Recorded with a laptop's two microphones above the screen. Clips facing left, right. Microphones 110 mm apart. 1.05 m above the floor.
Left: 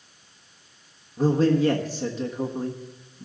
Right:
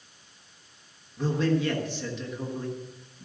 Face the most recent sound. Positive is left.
turn(degrees=40)  # may be behind; listen again after turning